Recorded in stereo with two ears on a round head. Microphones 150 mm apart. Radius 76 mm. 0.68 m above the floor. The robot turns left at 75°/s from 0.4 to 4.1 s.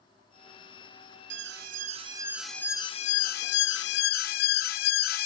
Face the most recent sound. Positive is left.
turn(degrees=60)